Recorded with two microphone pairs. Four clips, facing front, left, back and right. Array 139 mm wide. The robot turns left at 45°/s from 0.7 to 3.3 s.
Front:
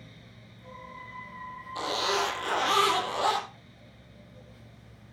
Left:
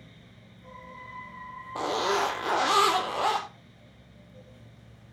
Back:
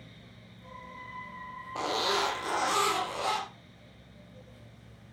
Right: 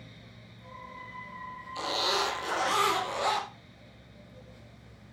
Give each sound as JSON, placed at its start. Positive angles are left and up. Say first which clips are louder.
{"t": 1.8, "sound": "a zipper", "louder": "left 4 dB, front 1 dB", "azimuth_deg": 115, "distance_m": 4.0}